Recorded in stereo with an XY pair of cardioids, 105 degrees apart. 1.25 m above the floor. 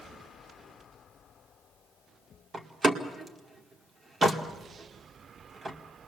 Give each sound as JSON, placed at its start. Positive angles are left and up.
{"t": 2.5, "sound": "a door slam", "azimuth_deg": -35, "distance_m": 2.0}